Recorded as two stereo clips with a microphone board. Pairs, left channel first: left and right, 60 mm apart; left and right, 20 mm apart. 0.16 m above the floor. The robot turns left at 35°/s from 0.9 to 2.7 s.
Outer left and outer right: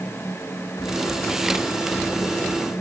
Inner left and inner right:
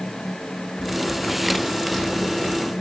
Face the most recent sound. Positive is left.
turn(degrees=20)